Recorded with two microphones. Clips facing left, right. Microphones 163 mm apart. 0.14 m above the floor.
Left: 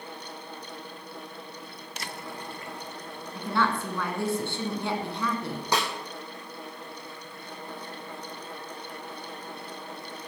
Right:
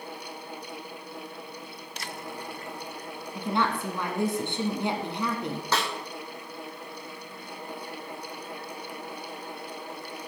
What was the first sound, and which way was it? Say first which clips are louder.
A woman speaking: even; 20° right (ahead or behind).